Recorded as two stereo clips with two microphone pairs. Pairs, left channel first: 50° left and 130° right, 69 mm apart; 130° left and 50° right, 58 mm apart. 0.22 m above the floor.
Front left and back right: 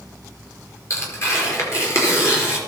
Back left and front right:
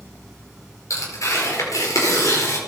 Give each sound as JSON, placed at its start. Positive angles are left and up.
{"t": 0.9, "sound": "tearing paper", "azimuth_deg": 100, "distance_m": 4.5}